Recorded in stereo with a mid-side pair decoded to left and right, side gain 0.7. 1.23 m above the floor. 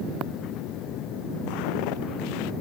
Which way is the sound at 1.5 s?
70° left.